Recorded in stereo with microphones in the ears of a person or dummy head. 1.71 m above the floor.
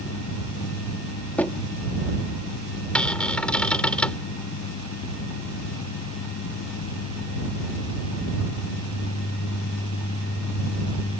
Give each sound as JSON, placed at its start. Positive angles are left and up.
{"t": 1.4, "sound": "knocking", "side_deg": 10}
{"t": 3.0, "sound": "a cupboard door", "side_deg": 10}